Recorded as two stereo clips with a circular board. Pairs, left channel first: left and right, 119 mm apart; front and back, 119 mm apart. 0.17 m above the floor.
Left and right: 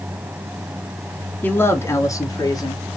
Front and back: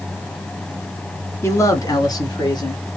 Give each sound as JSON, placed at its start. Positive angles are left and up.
{"t": 1.4, "sound": "a man speaking", "azimuth_deg": 35, "distance_m": 1.4}